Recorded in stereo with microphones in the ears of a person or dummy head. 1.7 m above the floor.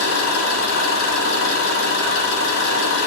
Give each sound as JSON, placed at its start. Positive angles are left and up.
{"t": 0.0, "sound": "an engine running", "side_deg": 70, "distance_m": 4.0}